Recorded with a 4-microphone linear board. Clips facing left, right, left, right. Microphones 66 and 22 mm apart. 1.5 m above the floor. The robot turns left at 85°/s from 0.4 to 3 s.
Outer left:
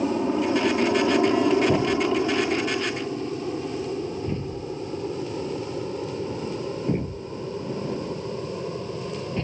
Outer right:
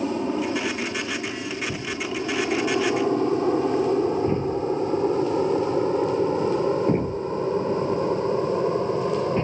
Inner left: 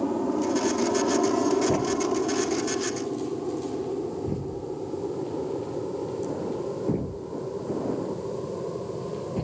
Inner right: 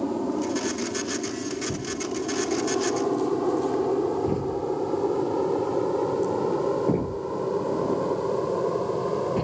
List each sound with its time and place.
0.0 s an aircraft: 5° left (ahead or behind); by 9.4 s 40° right (ahead or behind)
1.7 s a thud: 85° left; by 9.4 s 20° right (ahead or behind)